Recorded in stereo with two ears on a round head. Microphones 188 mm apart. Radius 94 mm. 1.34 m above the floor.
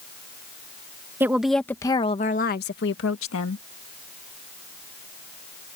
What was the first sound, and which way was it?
A woman speaking, 10° right (ahead or behind).